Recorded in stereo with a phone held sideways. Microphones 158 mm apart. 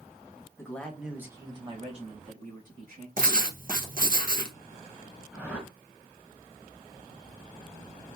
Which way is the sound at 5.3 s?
15° right (ahead or behind).